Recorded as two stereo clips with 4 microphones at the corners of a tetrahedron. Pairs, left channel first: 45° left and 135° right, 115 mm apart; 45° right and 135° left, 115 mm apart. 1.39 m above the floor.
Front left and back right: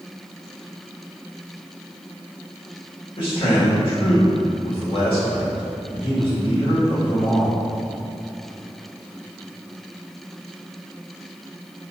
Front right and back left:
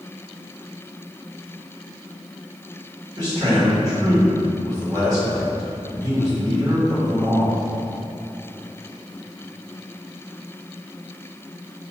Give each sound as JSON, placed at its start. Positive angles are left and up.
{"t": 3.2, "sound": "a man speaking", "azimuth_deg": 80, "distance_m": 1.8}